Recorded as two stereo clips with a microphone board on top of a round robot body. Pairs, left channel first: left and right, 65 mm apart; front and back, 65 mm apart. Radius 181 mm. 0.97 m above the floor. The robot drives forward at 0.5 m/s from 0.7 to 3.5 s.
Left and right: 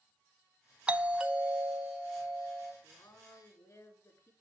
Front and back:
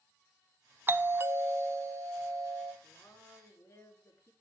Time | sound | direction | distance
0.9 | a doorbell | 155° right | 1.2 m
2.8 | a woman speaking | 50° left | 3.5 m